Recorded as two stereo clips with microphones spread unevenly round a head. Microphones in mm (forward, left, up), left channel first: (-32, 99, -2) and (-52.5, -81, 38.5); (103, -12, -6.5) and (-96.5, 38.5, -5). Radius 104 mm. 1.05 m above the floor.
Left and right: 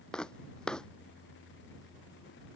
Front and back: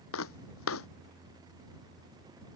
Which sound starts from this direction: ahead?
Footsteps, at 0.1 s.